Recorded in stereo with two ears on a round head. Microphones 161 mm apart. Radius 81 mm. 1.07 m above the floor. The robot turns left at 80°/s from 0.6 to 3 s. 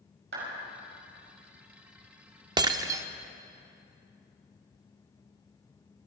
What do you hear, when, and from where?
0.3 s a clap: 65° right (ahead or behind), 6 m
2.6 s breaking glass: 25° right (ahead or behind), 0.6 m; by 3.0 s 15° right (ahead or behind), 0.6 m